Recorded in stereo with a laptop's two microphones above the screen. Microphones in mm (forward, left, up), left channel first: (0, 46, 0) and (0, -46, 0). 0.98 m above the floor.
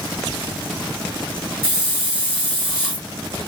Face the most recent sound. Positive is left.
turn(degrees=25)  # may be behind; listen again after turning